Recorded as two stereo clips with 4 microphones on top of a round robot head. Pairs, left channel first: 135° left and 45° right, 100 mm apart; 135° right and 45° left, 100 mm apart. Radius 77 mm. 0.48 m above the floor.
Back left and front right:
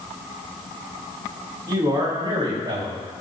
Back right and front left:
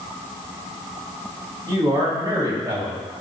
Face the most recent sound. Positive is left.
turn(degrees=-10)